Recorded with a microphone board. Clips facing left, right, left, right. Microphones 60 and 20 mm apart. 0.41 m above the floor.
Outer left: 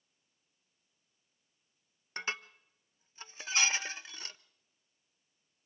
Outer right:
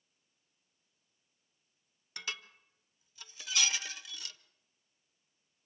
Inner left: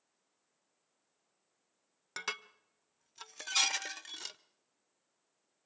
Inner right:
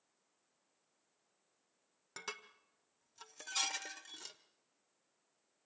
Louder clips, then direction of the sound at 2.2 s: Outer left 4 dB, inner left 7 dB; 35° left (ahead or behind).